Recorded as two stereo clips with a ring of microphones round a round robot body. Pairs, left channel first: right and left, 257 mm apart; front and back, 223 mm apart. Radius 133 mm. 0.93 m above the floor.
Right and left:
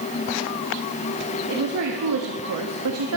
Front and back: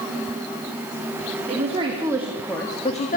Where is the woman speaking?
120° left, 2.5 m; by 3.2 s 50° left, 1.8 m.